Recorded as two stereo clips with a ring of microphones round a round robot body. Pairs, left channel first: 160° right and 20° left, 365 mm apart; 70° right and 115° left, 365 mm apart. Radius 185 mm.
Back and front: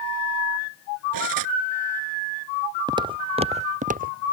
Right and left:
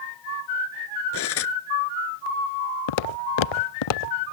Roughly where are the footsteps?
Ahead right.